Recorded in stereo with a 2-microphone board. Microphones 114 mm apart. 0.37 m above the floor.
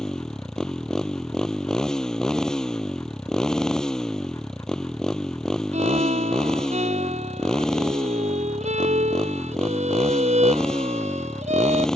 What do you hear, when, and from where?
0.0 s a motorcycle: 5° left (ahead or behind)
5.7 s a violin: 85° right